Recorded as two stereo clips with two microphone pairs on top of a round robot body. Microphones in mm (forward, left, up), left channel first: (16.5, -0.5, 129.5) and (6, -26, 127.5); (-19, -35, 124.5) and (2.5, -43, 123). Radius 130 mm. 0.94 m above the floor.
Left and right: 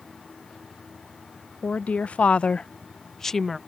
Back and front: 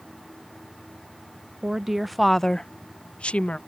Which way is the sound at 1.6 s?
40° left.